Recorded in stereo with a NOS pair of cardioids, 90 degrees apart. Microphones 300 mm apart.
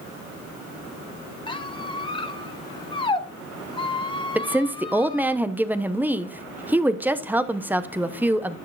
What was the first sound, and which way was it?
A squeak, 15° left.